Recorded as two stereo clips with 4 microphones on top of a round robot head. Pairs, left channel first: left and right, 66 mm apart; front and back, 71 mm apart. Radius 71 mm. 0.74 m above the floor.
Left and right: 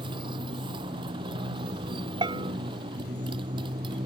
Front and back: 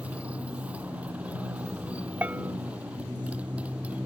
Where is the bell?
105° right.